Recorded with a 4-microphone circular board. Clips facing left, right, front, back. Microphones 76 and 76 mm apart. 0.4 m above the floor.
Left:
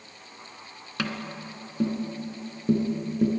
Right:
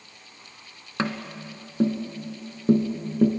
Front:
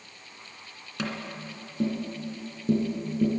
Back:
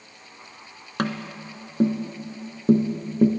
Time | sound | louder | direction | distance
1.0 | tapping | right 3 dB, back 6 dB | 150° right | 1.8 m